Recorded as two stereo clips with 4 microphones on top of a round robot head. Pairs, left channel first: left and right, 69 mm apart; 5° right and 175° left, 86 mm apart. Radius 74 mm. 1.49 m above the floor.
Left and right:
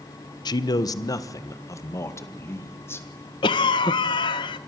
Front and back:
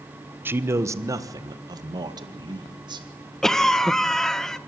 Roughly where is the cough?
Left.